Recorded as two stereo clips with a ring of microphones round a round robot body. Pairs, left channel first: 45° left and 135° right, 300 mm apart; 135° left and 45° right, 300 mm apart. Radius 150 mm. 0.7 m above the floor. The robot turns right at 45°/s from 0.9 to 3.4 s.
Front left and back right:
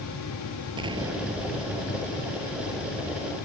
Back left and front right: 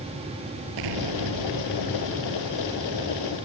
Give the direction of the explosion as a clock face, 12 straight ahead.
2 o'clock.